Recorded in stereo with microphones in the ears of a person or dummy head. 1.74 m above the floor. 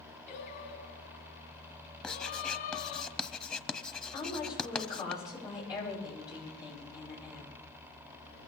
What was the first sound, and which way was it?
Singing, 65° left (ahead or behind).